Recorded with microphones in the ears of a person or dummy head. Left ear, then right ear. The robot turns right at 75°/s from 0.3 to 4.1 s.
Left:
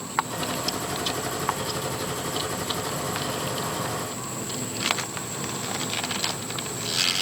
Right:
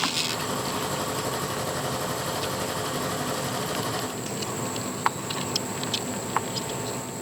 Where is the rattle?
No rattle in this recording.